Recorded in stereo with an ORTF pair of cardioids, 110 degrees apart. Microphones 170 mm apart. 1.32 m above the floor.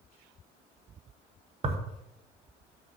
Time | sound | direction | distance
1.6 | tearing paper | 40° right | 1.3 m